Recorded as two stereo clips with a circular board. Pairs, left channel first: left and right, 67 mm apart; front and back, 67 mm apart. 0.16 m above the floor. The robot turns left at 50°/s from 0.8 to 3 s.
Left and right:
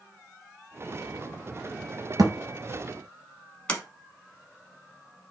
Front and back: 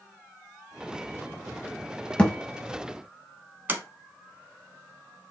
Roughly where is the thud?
Right.